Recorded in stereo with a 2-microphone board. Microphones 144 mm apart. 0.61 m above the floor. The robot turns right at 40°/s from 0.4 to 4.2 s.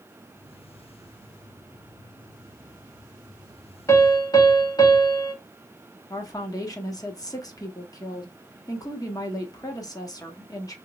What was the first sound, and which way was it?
A piano, 20° left (ahead or behind).